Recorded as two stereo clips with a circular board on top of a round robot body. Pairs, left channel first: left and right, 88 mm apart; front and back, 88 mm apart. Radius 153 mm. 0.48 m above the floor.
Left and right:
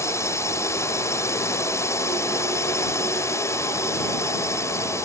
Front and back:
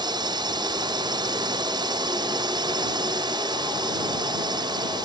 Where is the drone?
145° left.